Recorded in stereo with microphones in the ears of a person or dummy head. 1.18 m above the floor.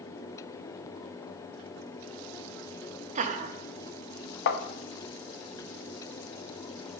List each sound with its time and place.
3.1 s laughter: 30° right (ahead or behind), 0.7 m
4.5 s tapping: 70° left (ahead or behind), 0.7 m